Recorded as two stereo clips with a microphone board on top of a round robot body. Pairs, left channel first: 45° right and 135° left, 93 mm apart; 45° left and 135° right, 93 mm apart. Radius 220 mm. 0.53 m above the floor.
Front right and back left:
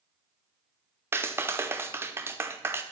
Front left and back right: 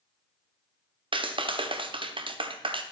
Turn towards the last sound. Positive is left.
turn(degrees=-160)